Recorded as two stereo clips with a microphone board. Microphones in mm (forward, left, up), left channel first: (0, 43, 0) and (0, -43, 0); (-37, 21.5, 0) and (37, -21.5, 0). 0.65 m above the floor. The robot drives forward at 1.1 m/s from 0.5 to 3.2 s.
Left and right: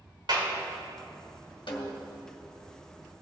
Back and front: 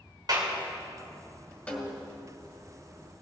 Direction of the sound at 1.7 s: 75° left.